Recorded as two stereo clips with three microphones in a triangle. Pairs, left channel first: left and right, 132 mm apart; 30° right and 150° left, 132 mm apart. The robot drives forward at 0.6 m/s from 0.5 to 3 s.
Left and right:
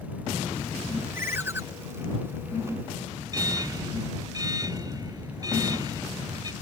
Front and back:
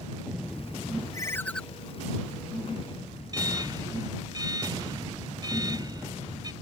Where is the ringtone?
45° right; by 1.6 s 105° right.